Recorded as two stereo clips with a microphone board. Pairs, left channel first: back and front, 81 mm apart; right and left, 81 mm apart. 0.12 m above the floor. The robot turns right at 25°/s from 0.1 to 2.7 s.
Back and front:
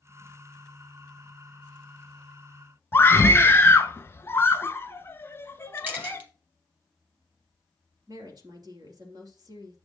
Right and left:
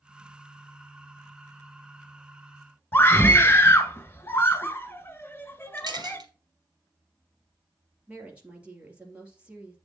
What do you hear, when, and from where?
2.9 s a scream: 135° right, 1.4 m
5.8 s a camera shutter: 65° left, 3 m
8.1 s a woman speaking: 20° left, 3 m